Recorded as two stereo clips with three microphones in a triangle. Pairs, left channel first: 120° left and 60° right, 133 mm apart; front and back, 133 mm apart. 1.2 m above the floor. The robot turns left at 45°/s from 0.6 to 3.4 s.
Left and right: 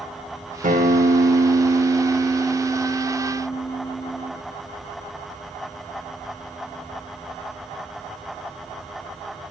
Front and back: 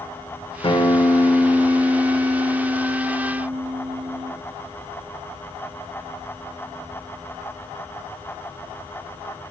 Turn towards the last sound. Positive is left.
turn(degrees=-170)